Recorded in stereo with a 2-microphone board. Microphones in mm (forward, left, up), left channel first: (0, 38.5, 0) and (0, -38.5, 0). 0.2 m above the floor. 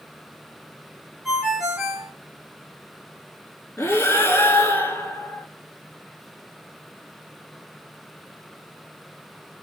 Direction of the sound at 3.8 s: 30° left (ahead or behind).